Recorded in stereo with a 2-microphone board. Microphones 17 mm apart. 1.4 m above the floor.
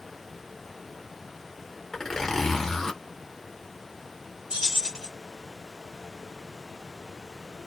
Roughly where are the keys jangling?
Right.